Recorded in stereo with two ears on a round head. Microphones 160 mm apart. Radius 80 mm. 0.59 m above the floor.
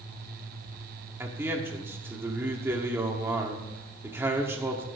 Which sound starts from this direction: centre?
A man speaking, at 1.2 s.